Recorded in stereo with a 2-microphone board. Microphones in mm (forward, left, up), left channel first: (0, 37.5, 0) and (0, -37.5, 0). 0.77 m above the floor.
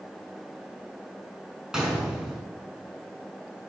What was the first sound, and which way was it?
A gunshot, 5° right (ahead or behind).